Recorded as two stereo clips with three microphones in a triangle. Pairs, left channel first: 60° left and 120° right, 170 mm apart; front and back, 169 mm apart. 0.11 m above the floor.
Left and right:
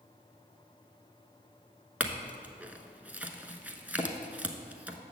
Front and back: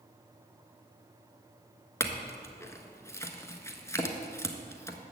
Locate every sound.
2.0 s a clink: 50° right, 0.7 m